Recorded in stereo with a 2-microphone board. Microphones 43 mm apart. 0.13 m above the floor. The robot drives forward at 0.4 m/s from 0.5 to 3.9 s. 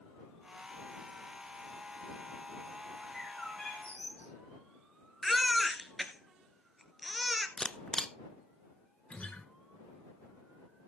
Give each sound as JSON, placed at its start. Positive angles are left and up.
{"t": 3.0, "sound": "a bird", "side_deg": 20, "distance_m": 7.0}
{"t": 5.2, "sound": "a baby crying", "side_deg": 0, "distance_m": 1.2}
{"t": 7.6, "sound": "a camera shutter", "side_deg": 20, "distance_m": 0.6}
{"t": 9.1, "sound": "a guitar", "side_deg": 35, "distance_m": 1.7}